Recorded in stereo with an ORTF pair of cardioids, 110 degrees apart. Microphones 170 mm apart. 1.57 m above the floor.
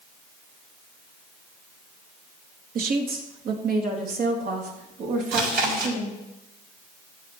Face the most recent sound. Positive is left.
turn(degrees=-70)